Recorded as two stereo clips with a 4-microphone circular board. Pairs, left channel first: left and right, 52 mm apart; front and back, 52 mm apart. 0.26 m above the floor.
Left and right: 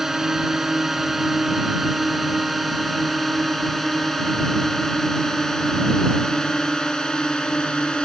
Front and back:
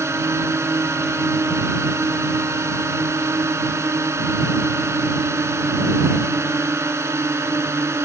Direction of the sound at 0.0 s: 170° right.